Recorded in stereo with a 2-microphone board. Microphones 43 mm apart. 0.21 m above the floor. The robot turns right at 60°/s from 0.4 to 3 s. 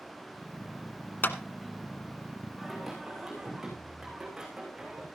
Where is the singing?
15° left (ahead or behind), 9 m; by 5.1 s 10° right (ahead or behind), 9 m.